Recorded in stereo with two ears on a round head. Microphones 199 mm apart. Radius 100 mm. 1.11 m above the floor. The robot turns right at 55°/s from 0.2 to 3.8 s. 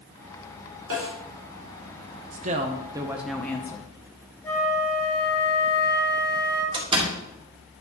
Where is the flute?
10° left (ahead or behind), 1.8 m.